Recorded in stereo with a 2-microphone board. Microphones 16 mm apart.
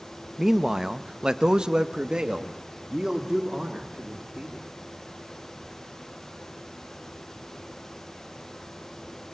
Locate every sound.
0.4 s a man speaking: 20° right (ahead or behind), 1.0 m; by 4.7 s 45° right (ahead or behind), 3 m